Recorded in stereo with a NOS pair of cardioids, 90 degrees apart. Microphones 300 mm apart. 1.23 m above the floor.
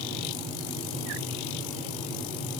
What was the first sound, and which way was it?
Only background noise.